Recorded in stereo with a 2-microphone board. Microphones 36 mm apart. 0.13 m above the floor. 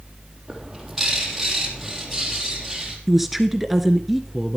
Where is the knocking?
I don't hear knocking.